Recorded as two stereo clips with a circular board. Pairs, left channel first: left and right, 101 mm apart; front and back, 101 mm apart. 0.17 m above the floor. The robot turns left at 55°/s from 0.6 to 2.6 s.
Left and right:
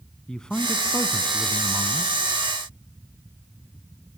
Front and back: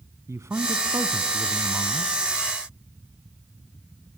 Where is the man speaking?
165° left, 1.2 m; by 2.1 s 80° left, 1.2 m.